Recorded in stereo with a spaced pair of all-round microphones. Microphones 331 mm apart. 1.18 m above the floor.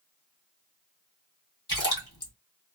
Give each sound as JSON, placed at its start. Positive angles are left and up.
{"t": 1.7, "sound": "a splash", "side_deg": 75, "distance_m": 1.6}